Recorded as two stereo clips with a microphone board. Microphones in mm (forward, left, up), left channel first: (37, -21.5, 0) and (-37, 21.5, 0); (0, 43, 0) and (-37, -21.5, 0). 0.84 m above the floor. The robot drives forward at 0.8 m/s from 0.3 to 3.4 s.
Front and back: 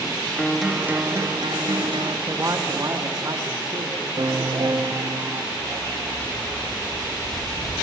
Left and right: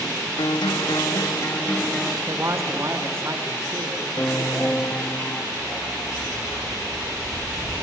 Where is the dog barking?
150° left, 7.5 m.